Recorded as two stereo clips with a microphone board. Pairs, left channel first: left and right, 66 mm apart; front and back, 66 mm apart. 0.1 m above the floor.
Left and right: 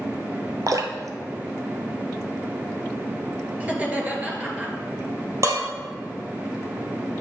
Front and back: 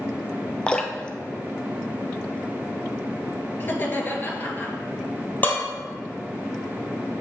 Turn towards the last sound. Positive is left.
turn(degrees=-60)